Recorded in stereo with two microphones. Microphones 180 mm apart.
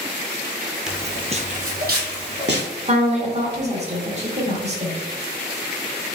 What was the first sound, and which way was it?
Footsteps, 5° right (ahead or behind).